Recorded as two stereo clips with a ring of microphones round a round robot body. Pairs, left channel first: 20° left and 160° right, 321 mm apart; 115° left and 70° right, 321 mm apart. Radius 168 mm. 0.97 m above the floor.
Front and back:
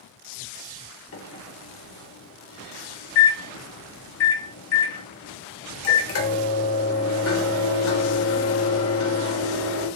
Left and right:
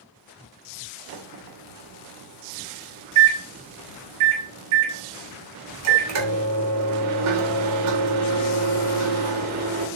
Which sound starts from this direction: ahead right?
A microwave, at 1.1 s.